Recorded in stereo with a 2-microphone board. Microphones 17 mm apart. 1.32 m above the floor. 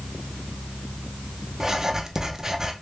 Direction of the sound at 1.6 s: 25° right (ahead or behind).